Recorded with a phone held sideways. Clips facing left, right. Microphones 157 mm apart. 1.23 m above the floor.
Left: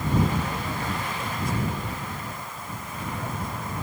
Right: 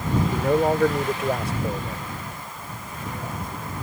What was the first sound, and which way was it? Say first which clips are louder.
A man speaking: right 10 dB; 85° right.